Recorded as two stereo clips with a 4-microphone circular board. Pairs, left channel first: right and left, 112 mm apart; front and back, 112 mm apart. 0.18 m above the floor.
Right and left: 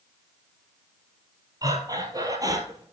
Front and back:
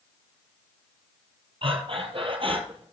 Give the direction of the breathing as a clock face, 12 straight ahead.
7 o'clock.